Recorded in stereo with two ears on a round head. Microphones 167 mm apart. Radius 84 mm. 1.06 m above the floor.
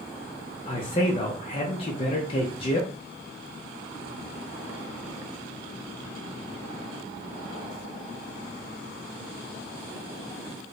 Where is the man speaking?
30° left (ahead or behind), 0.6 m.